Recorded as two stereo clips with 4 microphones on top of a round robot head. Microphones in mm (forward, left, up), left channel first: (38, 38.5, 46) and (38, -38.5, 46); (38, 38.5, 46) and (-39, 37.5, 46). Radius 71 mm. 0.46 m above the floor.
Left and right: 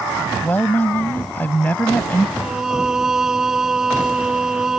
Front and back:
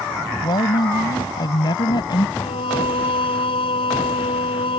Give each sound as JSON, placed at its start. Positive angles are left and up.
{"t": 0.4, "sound": "a woman speaking", "azimuth_deg": 20}
{"t": 2.4, "sound": "singing", "azimuth_deg": -10}